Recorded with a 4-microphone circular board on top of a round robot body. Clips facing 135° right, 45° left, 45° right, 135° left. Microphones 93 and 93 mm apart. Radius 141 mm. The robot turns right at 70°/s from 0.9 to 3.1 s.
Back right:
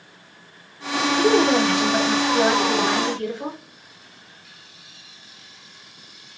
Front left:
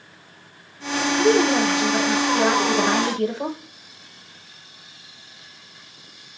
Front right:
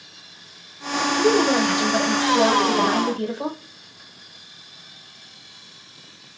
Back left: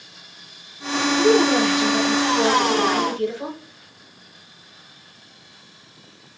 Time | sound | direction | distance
1.2 | a woman speaking | 125° right | 1.1 m